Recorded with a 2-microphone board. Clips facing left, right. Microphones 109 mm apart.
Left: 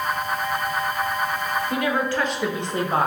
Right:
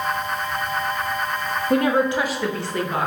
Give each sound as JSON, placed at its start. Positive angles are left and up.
{"t": 1.7, "sound": "a woman speaking", "side_deg": -50, "distance_m": 0.6}